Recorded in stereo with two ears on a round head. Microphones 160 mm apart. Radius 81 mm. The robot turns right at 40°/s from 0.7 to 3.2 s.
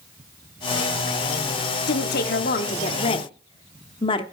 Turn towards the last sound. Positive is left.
turn(degrees=145)